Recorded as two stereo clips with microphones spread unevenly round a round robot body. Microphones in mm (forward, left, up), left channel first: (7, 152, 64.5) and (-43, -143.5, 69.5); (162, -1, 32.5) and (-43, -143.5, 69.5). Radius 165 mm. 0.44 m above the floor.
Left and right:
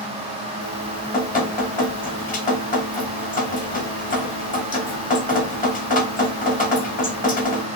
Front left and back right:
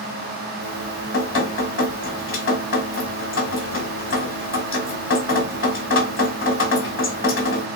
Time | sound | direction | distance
0.6 | dripping | 20° left | 2 m